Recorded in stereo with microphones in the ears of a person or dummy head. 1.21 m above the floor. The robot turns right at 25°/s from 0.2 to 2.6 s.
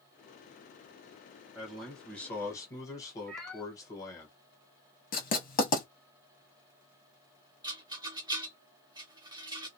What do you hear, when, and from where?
1.6 s a man speaking: 10° right (ahead or behind), 1.2 m; by 4.3 s 15° left (ahead or behind), 1.2 m
3.3 s a cat meowing: 5° left (ahead or behind), 0.5 m
5.1 s writing: 50° left (ahead or behind), 1.0 m
7.6 s a rattle: 25° right (ahead or behind), 0.6 m